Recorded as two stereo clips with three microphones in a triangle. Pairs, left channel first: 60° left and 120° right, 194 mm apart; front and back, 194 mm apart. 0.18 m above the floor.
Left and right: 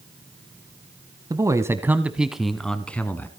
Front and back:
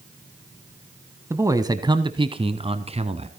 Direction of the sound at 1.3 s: 135° right.